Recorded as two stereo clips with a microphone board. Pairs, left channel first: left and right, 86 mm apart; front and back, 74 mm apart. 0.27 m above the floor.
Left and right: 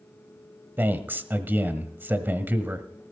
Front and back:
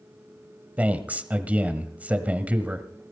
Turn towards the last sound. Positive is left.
turn(degrees=-130)